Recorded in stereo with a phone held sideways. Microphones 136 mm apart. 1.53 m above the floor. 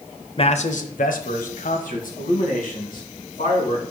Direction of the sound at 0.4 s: 40° left (ahead or behind).